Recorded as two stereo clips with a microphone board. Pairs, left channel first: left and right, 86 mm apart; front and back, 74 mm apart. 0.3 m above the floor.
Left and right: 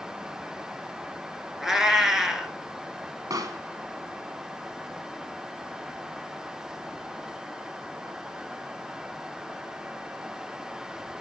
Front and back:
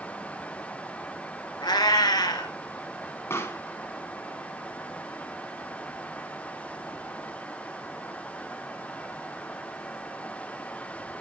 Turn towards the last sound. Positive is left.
turn(degrees=-50)